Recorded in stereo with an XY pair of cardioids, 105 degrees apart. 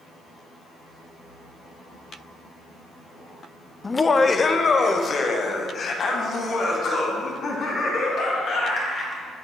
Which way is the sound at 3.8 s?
20° left.